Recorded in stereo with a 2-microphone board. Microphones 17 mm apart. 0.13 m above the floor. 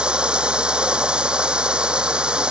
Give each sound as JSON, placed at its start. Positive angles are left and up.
{"t": 0.0, "sound": "running water", "side_deg": -65}